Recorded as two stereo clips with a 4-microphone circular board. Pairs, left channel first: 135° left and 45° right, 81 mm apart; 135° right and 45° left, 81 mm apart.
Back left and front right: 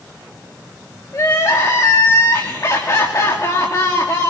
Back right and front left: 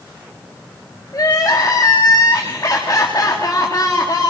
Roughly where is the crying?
Behind.